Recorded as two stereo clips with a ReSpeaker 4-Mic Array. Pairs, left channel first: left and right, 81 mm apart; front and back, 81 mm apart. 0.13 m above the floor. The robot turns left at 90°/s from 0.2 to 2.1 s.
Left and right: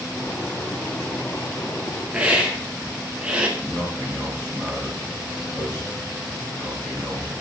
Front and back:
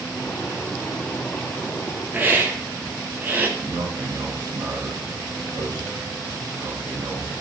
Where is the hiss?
145° right, 1.3 m.